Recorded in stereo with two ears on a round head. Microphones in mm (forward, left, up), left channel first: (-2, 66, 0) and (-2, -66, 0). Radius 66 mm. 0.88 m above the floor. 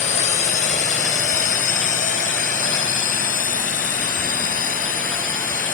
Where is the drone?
50° left (ahead or behind); by 5.8 s 60° left (ahead or behind).